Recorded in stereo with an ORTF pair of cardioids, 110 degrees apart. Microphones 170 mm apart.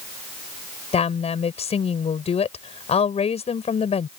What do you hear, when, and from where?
0.9 s a woman speaking: 40° left